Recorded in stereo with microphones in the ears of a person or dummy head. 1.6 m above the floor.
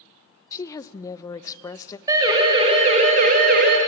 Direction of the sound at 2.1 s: 20° right (ahead or behind).